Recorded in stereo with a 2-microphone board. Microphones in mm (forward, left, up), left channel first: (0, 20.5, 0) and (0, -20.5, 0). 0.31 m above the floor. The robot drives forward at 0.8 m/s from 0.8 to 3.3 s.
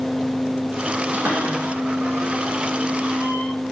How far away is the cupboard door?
About 4 m.